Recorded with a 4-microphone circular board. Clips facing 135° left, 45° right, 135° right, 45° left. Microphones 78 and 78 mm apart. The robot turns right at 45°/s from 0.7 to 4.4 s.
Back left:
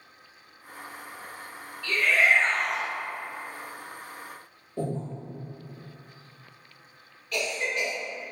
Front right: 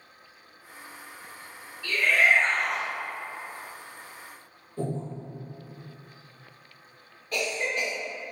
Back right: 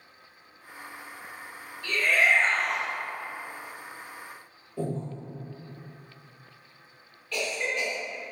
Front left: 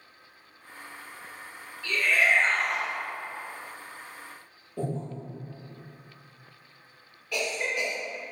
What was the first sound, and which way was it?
A shout, 120° right.